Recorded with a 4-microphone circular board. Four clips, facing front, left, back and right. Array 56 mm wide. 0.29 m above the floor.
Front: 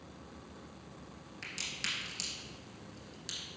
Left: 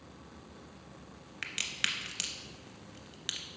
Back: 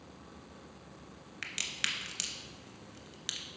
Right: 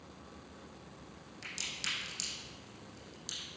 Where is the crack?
125° left, 0.6 m.